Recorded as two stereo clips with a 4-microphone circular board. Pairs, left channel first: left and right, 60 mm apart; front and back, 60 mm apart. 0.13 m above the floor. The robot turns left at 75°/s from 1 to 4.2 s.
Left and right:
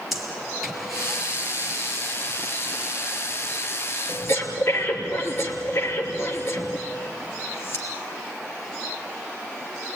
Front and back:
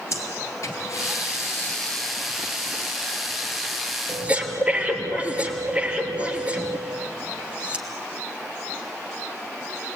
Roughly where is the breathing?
Ahead.